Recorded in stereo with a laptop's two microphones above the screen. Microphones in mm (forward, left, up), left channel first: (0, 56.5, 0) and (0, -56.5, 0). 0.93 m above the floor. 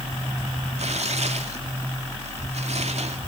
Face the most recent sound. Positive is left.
turn(degrees=-70)  # may be behind; listen again after turning